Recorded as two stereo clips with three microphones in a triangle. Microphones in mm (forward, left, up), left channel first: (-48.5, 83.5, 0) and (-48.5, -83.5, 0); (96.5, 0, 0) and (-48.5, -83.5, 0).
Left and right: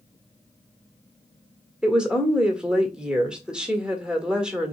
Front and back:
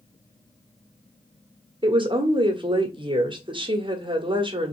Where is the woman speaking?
170° right, 1.2 m.